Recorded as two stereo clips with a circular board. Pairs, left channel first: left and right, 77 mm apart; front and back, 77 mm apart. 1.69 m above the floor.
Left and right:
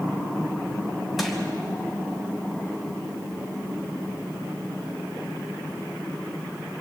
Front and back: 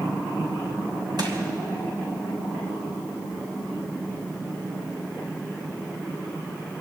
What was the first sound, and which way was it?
Crushing, straight behind.